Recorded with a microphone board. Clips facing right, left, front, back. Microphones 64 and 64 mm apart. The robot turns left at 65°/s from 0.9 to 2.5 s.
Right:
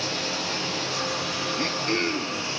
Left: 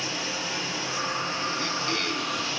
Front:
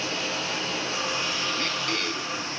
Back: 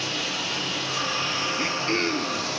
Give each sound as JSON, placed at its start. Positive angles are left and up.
{"t": 0.0, "sound": "running water", "azimuth_deg": -60, "distance_m": 9.0}
{"t": 1.6, "sound": "throat clearing", "azimuth_deg": -110, "distance_m": 0.9}